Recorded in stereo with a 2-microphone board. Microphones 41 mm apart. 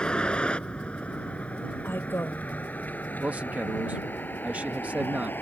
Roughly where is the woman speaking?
Left.